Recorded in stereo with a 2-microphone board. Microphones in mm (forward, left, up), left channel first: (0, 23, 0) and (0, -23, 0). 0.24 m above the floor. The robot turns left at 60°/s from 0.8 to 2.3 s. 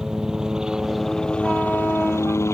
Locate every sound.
0.0 s a helicopter: 170° right; by 2.5 s 100° left